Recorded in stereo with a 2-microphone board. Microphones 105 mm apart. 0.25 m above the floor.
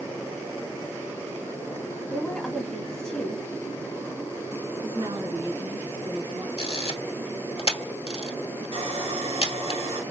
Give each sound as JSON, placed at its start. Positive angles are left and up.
{"t": 2.1, "sound": "a woman speaking", "side_deg": 5, "distance_m": 1.2}
{"t": 4.8, "sound": "a woman speaking", "side_deg": -55, "distance_m": 2.5}
{"t": 6.6, "sound": "a camera shutter", "side_deg": 65, "distance_m": 0.8}
{"t": 8.7, "sound": "sawing", "side_deg": -65, "distance_m": 1.4}